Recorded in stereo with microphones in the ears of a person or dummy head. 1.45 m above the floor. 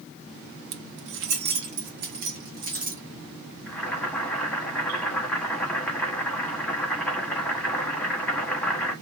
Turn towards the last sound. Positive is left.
turn(degrees=5)  # may be behind; listen again after turning